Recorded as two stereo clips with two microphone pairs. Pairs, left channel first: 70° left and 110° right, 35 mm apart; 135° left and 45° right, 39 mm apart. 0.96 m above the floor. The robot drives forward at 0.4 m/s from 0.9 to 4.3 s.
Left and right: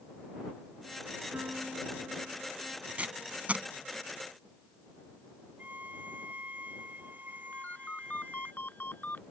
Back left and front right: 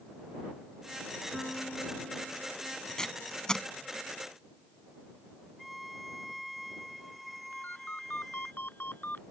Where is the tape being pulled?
150° right.